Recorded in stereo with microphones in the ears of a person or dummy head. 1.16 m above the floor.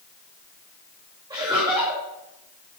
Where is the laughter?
20° right (ahead or behind), 1.0 m.